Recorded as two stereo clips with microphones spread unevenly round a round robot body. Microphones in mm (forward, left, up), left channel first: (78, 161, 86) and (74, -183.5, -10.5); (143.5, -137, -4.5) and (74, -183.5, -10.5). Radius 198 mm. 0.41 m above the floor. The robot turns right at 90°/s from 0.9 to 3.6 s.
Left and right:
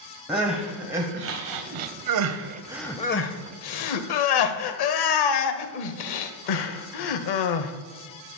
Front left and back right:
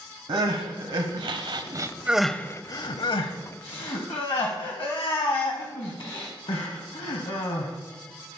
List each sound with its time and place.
0.3 s crying: 175° right, 0.9 m; by 7.7 s 70° left, 0.9 m